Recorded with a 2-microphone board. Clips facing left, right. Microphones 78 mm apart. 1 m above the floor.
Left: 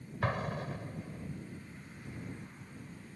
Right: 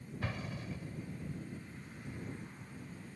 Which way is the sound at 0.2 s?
55° left (ahead or behind).